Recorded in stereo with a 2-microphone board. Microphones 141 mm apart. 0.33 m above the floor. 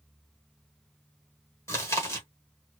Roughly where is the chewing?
Centre.